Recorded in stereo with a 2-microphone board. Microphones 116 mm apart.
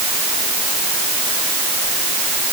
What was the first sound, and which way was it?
Only background noise.